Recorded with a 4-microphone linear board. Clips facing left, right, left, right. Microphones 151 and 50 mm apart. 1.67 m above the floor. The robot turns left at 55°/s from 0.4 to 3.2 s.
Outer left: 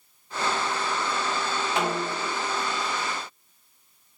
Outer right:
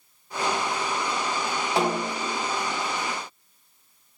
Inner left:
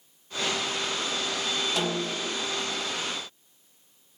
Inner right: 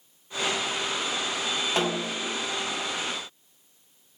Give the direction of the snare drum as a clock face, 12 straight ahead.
5 o'clock.